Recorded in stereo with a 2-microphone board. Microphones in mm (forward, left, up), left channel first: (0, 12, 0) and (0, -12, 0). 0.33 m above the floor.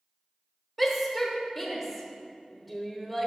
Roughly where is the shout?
Centre.